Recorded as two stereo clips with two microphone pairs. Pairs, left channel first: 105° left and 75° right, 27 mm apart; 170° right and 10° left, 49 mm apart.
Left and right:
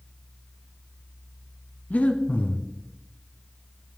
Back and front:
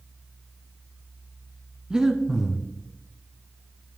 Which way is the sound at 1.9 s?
85° left.